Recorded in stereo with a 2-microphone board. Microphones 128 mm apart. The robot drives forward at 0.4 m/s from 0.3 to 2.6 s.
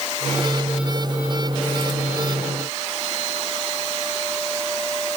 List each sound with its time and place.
Only background noise.